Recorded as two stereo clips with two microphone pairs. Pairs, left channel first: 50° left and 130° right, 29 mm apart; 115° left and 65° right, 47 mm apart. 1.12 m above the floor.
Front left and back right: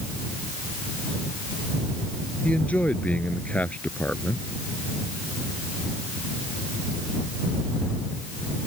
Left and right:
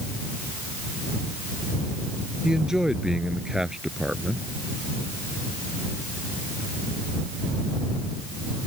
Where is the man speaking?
15° left.